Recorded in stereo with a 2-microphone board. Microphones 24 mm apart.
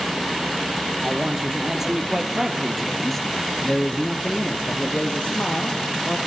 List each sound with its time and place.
1.0 s a man speaking: 30° right (ahead or behind), 4 m; by 6.2 s 55° left (ahead or behind), 4 m